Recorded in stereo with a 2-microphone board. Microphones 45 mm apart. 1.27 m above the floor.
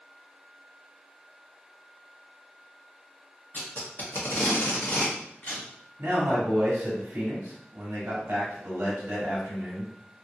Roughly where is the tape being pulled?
Left.